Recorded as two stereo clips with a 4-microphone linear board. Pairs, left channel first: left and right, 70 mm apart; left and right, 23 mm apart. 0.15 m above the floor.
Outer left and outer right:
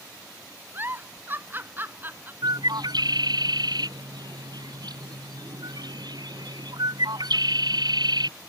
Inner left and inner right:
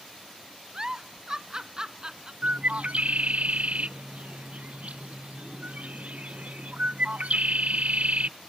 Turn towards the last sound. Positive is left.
turn(degrees=-70)  # may be behind; listen again after turning